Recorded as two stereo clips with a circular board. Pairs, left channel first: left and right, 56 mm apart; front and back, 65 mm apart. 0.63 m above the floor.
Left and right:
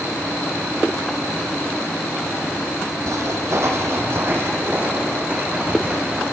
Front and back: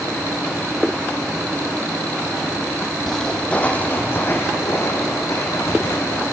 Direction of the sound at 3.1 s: 85° right.